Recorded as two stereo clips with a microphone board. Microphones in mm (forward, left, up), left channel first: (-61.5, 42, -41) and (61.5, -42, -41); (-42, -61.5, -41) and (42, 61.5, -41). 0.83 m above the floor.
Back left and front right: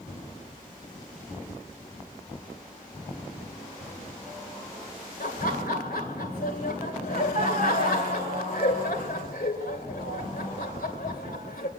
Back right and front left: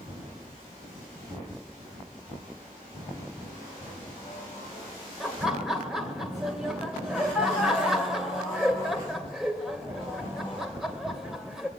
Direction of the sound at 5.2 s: 145° left.